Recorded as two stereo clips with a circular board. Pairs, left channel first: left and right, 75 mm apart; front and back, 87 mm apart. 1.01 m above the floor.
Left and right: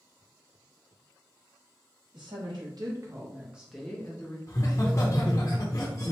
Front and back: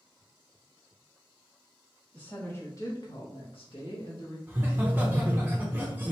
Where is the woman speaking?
75° right, 1.6 m; by 4.4 s 25° left, 1.3 m.